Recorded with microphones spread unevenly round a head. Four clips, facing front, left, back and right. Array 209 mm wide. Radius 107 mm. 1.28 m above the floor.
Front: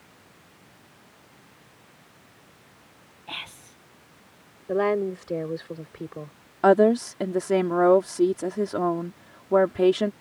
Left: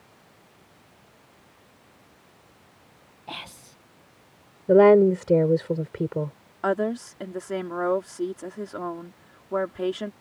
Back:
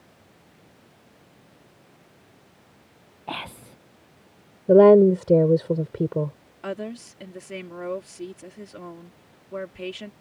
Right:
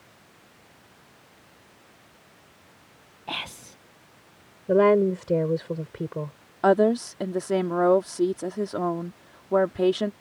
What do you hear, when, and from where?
3.3 s whispering: 165° right
4.7 s a woman speaking: 170° left
6.6 s a woman speaking: 15° right